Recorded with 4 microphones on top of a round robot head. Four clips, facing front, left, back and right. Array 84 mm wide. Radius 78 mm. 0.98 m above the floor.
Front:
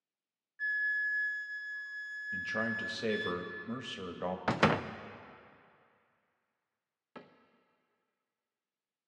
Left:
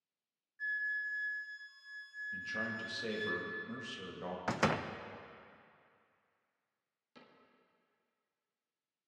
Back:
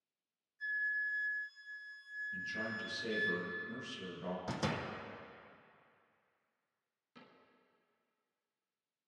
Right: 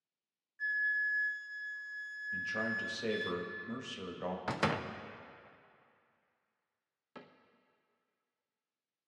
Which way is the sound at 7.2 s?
30° right.